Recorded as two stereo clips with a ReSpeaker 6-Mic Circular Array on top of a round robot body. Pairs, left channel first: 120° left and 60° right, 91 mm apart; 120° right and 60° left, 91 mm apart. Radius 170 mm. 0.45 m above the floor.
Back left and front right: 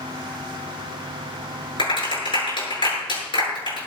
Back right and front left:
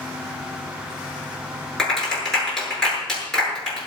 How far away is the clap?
About 7.5 m.